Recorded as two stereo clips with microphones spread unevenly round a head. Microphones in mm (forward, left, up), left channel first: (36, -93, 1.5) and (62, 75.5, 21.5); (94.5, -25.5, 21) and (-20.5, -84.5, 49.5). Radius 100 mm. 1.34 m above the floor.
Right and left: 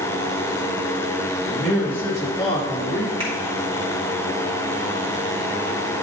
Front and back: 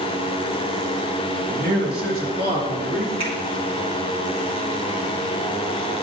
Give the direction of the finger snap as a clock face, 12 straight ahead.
7 o'clock.